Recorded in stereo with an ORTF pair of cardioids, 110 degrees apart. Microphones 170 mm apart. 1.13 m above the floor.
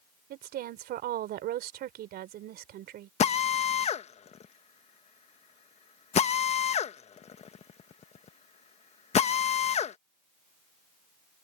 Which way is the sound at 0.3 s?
65° right.